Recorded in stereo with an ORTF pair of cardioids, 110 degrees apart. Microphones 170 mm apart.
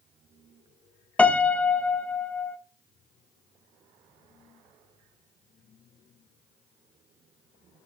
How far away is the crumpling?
I don't hear crumpling.